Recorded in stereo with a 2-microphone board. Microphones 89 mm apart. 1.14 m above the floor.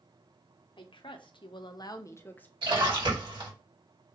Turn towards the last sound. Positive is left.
turn(degrees=-70)  # may be behind; listen again after turning